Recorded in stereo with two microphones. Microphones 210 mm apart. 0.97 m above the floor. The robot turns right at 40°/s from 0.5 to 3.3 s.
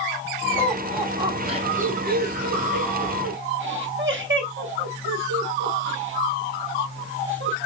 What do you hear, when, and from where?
0.6 s laughter: 10° left (ahead or behind), 1.8 m; by 7.6 s 65° right (ahead or behind), 1.8 m